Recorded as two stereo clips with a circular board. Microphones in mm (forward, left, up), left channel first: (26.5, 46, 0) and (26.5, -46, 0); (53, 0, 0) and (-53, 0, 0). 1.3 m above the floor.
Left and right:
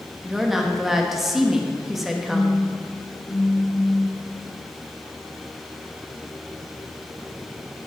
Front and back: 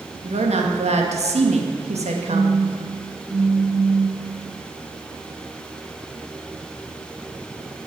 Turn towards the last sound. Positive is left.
turn(degrees=100)